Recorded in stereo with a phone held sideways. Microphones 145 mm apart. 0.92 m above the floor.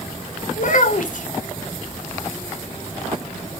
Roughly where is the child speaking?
Left.